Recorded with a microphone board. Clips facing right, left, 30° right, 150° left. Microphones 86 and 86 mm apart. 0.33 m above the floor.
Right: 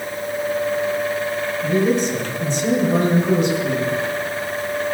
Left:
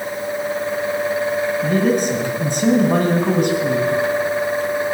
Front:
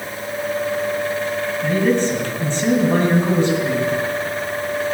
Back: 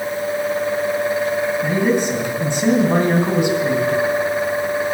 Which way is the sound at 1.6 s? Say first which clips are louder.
Right 1 dB, front 4 dB; 75° left.